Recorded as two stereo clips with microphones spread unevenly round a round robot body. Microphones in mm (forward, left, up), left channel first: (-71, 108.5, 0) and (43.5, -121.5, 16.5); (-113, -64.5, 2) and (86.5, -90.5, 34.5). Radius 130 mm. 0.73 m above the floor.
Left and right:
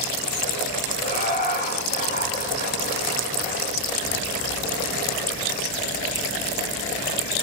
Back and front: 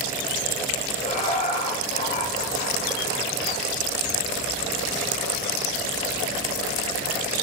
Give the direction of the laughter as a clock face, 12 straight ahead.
7 o'clock.